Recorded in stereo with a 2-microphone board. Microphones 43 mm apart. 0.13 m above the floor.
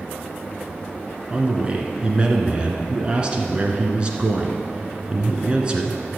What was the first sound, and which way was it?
A man speaking, 25° right (ahead or behind).